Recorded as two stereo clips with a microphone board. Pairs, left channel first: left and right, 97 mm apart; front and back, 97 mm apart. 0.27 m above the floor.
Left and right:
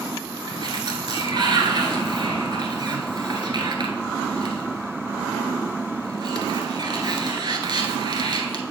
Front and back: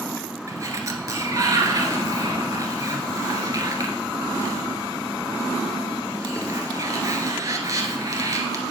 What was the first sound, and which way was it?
A sliding door, 130° right.